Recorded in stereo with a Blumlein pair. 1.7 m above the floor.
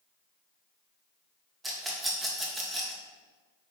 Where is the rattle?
15° right, 2 m.